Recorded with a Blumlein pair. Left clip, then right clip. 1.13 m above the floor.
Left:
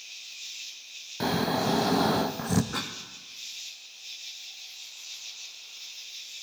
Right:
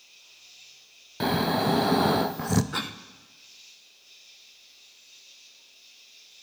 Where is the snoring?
10° right, 0.5 m.